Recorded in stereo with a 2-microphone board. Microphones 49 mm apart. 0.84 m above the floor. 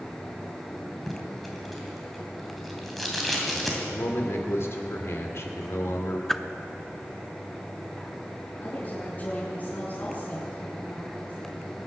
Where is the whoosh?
10° left (ahead or behind), 0.5 m.